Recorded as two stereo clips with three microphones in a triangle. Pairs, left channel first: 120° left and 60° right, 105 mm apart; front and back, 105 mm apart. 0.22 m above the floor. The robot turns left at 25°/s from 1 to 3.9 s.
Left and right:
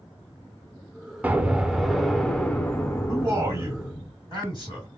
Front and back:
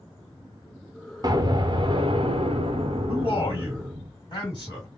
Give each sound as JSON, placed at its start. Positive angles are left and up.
{"t": 1.2, "sound": "an explosion", "azimuth_deg": -130, "distance_m": 0.5}
{"t": 3.1, "sound": "a man speaking", "azimuth_deg": -10, "distance_m": 1.9}